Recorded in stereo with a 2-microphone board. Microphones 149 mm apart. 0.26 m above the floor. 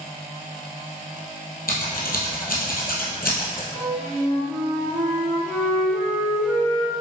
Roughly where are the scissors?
Left.